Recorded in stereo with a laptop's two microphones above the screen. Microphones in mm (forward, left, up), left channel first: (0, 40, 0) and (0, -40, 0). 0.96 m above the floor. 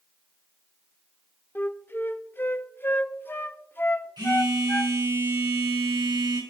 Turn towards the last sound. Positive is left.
turn(degrees=-80)